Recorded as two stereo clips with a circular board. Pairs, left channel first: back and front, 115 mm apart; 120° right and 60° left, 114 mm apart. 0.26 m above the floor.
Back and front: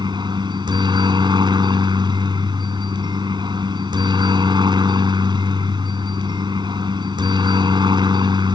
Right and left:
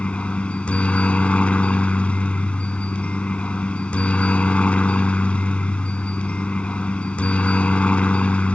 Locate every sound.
0.0 s a helicopter: 40° right